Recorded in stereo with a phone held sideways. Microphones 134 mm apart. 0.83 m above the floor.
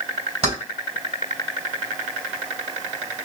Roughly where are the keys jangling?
Right.